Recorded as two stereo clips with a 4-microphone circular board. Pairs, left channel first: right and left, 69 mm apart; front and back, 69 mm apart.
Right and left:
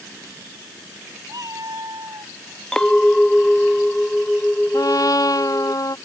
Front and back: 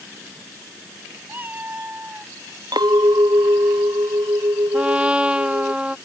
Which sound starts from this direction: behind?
A clink, at 2.7 s.